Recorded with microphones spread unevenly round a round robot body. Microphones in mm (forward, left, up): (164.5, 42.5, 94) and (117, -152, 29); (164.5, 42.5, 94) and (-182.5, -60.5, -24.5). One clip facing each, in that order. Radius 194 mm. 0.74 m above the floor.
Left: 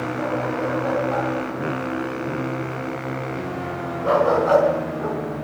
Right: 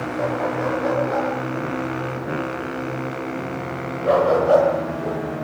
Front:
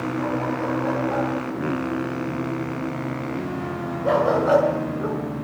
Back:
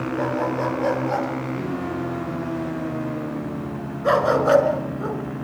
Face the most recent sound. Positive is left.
turn(degrees=120)